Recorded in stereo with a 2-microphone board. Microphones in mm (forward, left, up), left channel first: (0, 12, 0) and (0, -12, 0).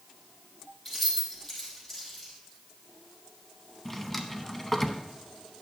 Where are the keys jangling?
20° left (ahead or behind), 4.5 m.